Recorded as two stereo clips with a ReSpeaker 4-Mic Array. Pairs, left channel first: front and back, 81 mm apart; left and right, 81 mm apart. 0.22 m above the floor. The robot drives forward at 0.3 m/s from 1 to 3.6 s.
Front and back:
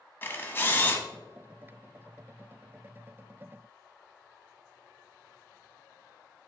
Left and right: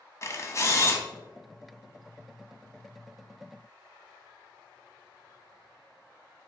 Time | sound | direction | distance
0.2 | a camera shutter | 55° left | 0.9 m